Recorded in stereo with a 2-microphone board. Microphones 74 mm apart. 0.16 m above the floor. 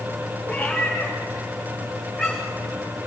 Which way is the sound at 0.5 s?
15° left (ahead or behind).